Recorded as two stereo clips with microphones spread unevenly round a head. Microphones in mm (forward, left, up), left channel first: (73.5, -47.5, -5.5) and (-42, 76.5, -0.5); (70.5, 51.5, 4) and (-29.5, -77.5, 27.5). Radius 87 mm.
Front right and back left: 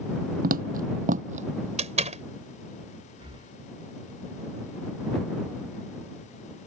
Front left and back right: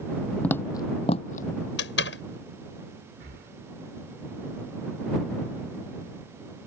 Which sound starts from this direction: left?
A door slam, at 1.8 s.